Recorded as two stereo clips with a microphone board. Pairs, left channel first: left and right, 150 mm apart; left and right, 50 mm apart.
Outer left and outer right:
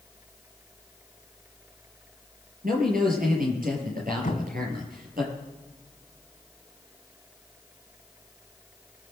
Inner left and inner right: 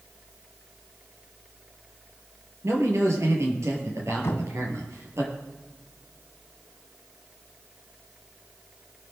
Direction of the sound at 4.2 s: 65° left (ahead or behind).